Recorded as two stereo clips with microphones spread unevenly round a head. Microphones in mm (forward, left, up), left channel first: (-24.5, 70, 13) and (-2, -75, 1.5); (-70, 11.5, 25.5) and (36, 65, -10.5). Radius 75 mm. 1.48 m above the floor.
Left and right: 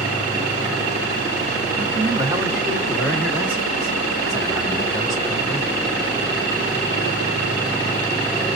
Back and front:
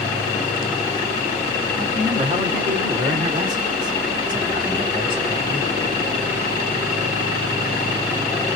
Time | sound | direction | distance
1.8 | a man speaking | 20° right | 1.3 m